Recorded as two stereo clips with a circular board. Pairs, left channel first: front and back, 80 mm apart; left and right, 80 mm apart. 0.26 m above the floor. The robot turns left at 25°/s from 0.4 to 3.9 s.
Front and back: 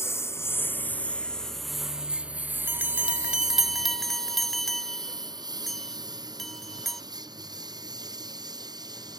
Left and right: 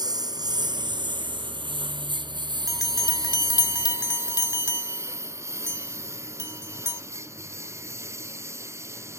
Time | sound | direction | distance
0.0 | a lawn mower | 60° right | ?
2.7 | a bell | 120° left | ?